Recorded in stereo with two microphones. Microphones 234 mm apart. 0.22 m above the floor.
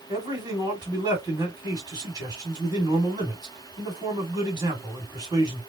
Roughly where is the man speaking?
Centre.